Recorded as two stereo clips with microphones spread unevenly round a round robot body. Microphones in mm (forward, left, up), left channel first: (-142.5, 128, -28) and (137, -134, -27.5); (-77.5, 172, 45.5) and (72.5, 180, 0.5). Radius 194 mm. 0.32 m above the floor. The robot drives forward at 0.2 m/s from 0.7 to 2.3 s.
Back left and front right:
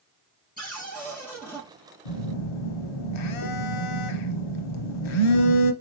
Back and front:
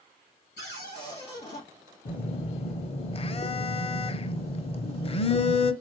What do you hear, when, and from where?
0.6 s a cupboard door: 150° right, 2.5 m; by 1.6 s 155° right, 2.5 m
2.0 s a phone buzzing: 115° left, 0.6 m; by 5.7 s 120° left, 0.7 m